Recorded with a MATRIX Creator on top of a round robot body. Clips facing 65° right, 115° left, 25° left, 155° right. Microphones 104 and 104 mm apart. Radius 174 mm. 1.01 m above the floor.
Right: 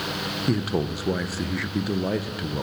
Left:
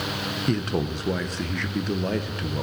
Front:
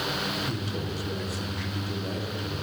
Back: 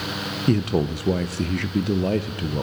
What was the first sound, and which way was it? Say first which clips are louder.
A man speaking: right 1 dB, back 11 dB; 150° right.